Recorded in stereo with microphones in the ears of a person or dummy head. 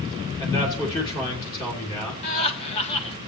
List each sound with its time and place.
0.4 s a man speaking: 25° left (ahead or behind), 3 m
2.2 s laughter: 30° left (ahead or behind), 1.6 m